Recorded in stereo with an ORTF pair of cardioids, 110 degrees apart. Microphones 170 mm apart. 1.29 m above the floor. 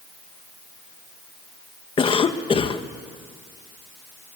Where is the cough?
30° left, 1.7 m.